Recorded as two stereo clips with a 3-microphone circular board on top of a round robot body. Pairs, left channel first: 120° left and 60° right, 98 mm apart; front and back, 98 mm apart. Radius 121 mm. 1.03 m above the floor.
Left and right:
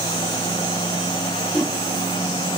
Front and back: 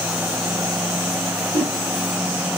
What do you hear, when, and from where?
1.5 s a whoosh: 155° right, 2 m